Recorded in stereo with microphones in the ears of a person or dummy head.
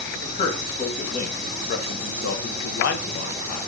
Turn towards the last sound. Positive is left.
turn(degrees=35)  # may be behind; listen again after turning